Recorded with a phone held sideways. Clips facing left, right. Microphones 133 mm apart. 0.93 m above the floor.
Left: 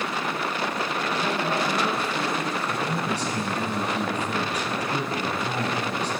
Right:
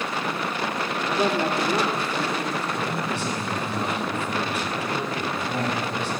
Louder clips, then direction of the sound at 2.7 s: Even; 40° left (ahead or behind).